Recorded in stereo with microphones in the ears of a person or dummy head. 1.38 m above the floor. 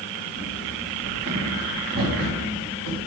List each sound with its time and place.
0.4 s running footsteps: 70° right (ahead or behind), 5 m; by 3.0 s 80° right, 7 m